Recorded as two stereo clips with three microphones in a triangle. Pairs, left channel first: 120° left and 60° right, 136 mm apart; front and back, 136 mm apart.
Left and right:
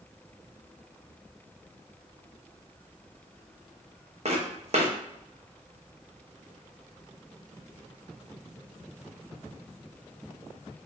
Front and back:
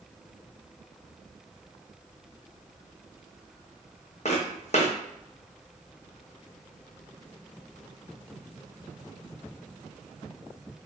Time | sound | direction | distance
4.2 | footsteps | 25° right | 1.5 m